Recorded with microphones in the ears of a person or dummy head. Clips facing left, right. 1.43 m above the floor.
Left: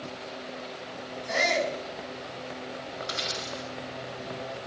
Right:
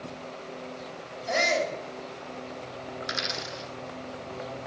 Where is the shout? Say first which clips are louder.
Right 1 dB; 70° right (ahead or behind), 6.5 m.